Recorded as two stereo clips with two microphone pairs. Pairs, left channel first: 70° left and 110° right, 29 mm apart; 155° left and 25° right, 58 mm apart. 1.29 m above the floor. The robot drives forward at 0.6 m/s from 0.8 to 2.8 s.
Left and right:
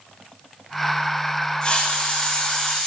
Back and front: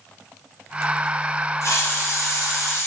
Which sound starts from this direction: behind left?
A hiss, at 1.6 s.